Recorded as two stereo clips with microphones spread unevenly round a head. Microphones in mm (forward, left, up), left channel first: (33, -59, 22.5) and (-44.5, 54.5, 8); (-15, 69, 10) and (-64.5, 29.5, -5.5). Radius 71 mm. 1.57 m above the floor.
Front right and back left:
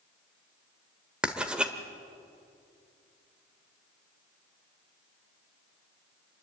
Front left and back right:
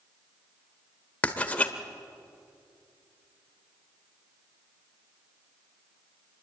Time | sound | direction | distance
1.2 | writing | 35° left | 1.4 m